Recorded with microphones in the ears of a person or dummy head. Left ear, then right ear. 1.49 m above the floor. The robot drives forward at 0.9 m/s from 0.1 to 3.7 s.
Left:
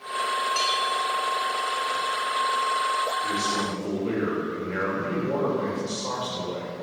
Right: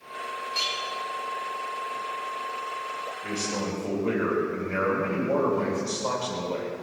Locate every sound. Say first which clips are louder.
0.5 s a clink: left 1 dB; 55° left (ahead or behind), 5.5 m
3.2 s a man speaking: left 5 dB; 10° right (ahead or behind), 3 m